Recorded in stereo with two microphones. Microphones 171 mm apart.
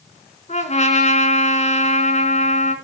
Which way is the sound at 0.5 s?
45° left (ahead or behind).